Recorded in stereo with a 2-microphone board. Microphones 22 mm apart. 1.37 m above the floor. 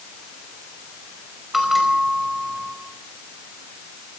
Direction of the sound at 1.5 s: 10° right (ahead or behind).